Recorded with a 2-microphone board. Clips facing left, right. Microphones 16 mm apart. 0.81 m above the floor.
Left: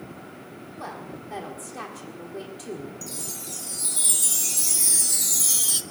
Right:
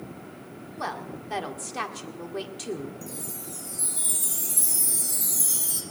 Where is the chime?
55° left (ahead or behind), 0.9 m.